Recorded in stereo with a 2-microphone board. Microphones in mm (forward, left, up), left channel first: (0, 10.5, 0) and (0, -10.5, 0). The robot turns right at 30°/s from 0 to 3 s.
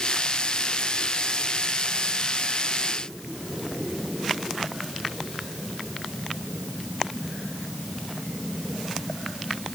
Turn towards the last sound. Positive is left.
No sound to turn to.